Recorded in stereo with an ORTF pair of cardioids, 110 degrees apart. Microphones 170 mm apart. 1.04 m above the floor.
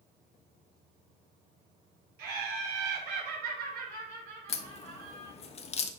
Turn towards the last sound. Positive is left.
turn(degrees=40)